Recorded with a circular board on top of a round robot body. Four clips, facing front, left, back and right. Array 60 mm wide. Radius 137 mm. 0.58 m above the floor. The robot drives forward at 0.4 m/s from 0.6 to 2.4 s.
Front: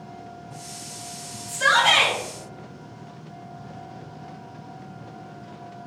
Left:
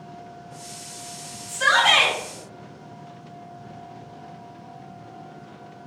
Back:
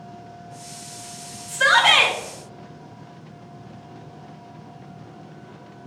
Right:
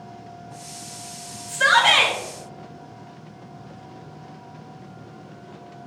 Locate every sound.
1.5 s a shout: 140° right, 1.9 m; by 2.1 s 145° right, 2 m